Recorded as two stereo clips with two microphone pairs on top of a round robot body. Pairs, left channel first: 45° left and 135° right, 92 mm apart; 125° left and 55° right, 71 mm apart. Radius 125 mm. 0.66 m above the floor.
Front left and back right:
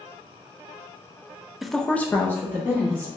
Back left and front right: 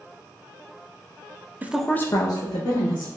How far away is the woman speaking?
About 0.6 m.